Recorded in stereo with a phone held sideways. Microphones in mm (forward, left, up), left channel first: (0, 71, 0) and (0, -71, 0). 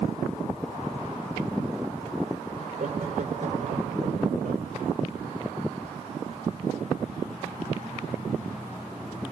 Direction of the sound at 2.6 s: 55° right (ahead or behind).